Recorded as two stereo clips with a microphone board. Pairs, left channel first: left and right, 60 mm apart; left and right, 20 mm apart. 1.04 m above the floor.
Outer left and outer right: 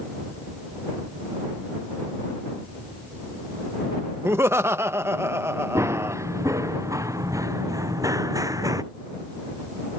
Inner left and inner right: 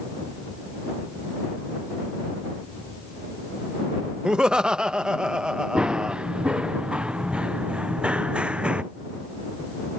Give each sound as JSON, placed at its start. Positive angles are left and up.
{"t": 4.2, "sound": "laughter", "side_deg": -45}
{"t": 5.8, "sound": "running footsteps", "side_deg": -50}